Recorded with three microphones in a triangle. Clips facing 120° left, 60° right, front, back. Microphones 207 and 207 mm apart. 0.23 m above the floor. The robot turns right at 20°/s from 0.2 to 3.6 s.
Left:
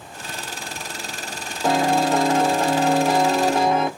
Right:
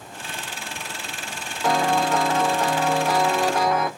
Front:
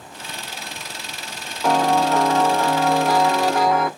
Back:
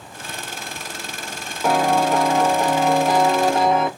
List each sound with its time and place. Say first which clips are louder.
1.6 s a piano: left 2 dB, even; 110° left, 0.5 m; by 3.9 s 145° left, 0.5 m